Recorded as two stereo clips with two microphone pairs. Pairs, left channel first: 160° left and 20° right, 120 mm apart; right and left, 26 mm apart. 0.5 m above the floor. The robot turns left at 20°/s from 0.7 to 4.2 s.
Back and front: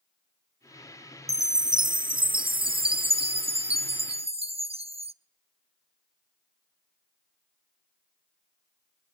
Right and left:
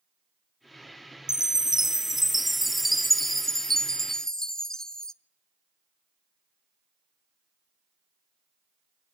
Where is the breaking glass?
I don't hear breaking glass.